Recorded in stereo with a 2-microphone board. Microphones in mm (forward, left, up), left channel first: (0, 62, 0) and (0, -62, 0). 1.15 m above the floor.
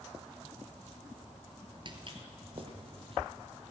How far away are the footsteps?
About 1.4 m.